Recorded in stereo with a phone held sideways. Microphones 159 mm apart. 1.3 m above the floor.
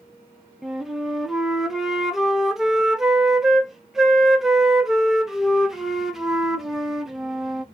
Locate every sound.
0.6 s a flute: 5° right (ahead or behind), 0.6 m